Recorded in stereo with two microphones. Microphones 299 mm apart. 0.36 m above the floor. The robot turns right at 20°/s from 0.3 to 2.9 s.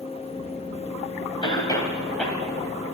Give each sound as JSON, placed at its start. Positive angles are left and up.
{"t": 1.4, "sound": "a cough", "side_deg": 15, "distance_m": 2.5}